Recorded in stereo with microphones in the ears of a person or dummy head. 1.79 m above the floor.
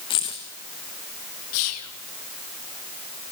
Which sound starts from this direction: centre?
Keys jangling, at 0.1 s.